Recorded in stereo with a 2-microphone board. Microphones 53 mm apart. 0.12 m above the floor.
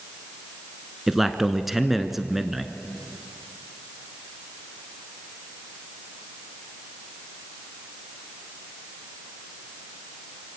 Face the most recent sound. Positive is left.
turn(degrees=-5)  # may be behind; listen again after turning